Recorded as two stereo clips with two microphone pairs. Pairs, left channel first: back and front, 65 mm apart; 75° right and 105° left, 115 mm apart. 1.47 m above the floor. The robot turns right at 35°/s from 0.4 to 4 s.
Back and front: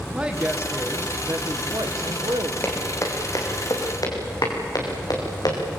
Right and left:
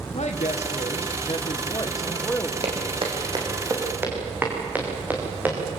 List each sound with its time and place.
0.1 s a woman speaking: 75° right, 1.4 m; by 2.5 s straight ahead, 1.4 m
2.6 s footsteps: 125° left, 4 m; by 5.6 s 175° left, 5.5 m